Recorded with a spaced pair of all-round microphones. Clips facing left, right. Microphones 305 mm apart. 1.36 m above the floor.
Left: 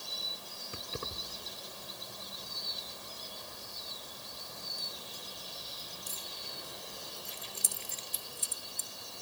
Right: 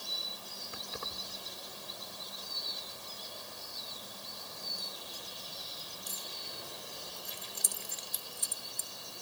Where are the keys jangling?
35° left (ahead or behind).